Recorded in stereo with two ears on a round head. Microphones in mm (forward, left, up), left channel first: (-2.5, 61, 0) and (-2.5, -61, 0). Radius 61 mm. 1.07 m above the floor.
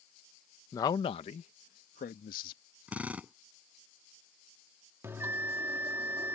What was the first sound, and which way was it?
A man speaking, 20° left (ahead or behind).